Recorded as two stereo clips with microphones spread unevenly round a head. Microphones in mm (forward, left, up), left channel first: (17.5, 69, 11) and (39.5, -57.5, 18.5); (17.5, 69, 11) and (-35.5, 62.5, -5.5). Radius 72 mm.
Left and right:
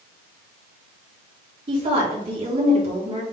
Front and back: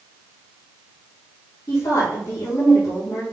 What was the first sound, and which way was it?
A woman speaking, 40° right.